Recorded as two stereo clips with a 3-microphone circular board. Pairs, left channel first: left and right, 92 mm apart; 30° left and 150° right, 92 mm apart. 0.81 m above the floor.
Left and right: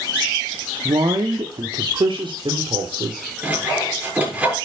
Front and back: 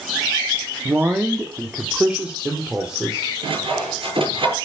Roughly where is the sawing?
Behind.